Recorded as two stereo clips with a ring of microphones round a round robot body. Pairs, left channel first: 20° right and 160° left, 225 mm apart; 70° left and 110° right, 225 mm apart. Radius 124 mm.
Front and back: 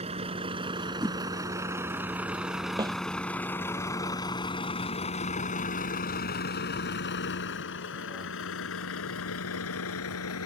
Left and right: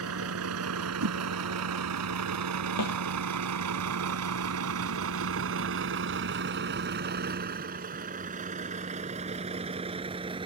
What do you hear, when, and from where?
0.0 s a vehicle: 135° right; by 10.5 s 45° right
1.0 s a whoosh: 125° right
2.8 s a snare drum: 85° left